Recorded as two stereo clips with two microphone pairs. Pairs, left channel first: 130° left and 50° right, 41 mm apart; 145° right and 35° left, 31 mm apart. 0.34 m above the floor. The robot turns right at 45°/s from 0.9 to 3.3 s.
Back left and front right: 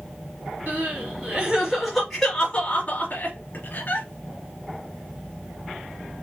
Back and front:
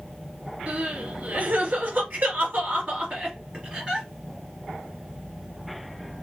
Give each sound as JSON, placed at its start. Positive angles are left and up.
{"t": 0.7, "sound": "crying", "azimuth_deg": -10, "distance_m": 3.0}